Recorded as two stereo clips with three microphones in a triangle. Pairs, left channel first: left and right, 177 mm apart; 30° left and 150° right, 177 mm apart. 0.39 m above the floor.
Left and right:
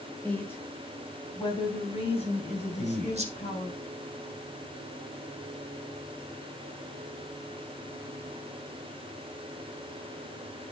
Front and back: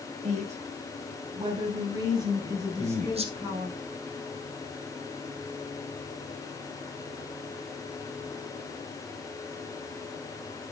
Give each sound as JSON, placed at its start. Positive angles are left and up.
{"t": 0.2, "sound": "a woman speaking", "azimuth_deg": 170, "distance_m": 2.5}
{"t": 2.8, "sound": "a man speaking", "azimuth_deg": -115, "distance_m": 1.7}